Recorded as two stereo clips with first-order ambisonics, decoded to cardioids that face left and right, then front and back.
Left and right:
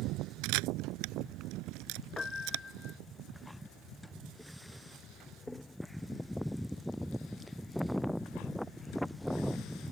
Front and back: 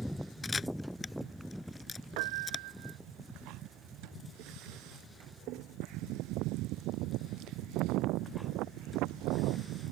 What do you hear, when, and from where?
0.4 s a camera shutter: 75° right
2.2 s a piano: 170° left